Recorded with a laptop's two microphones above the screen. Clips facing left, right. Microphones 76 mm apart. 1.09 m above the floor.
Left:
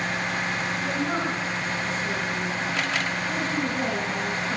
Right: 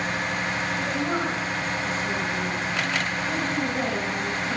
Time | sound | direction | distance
0.8 | a woman speaking | 35° right (ahead or behind) | 7.5 m